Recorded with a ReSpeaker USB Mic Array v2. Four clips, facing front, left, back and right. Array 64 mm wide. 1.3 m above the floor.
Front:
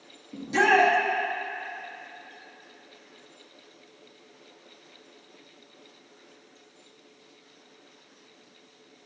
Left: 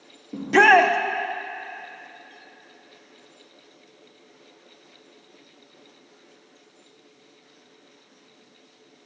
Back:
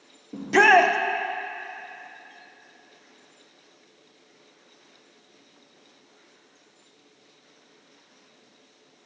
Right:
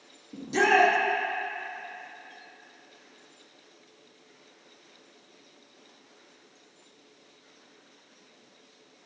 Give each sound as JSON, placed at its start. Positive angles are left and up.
{"t": 0.3, "sound": "a shout", "azimuth_deg": 125, "distance_m": 0.6}